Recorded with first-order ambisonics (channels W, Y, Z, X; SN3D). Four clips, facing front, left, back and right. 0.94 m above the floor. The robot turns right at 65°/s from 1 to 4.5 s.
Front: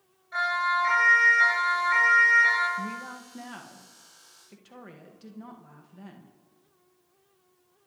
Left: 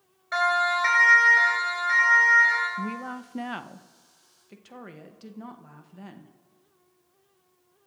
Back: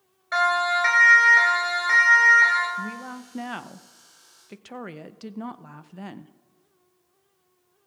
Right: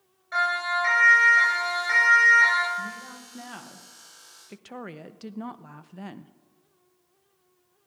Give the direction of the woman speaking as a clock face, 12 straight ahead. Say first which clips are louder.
Left 2 dB, back 2 dB; 9 o'clock.